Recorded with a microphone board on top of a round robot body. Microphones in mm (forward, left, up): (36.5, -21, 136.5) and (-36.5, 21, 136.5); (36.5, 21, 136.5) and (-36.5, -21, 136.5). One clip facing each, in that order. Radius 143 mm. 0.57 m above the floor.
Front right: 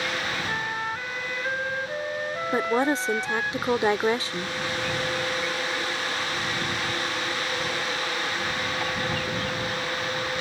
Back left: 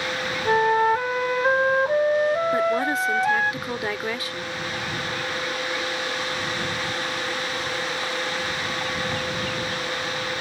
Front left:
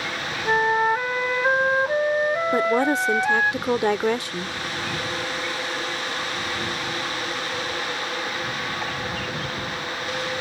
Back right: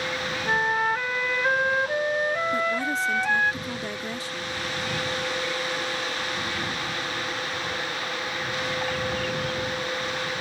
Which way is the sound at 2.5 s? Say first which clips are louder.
Back left 1 dB, front left 6 dB; 30° left.